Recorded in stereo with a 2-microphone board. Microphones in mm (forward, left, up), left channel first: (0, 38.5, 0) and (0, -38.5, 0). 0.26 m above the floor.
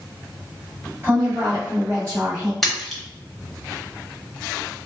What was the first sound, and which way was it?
A woman speaking, 25° right (ahead or behind).